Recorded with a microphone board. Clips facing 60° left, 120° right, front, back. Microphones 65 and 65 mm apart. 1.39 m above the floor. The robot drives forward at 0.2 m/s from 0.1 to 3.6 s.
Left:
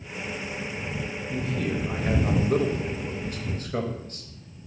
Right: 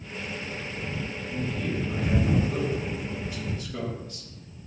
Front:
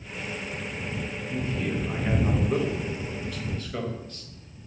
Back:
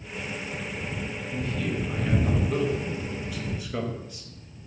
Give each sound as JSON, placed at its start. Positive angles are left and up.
{"t": 1.3, "sound": "a man speaking", "azimuth_deg": 55, "distance_m": 0.6}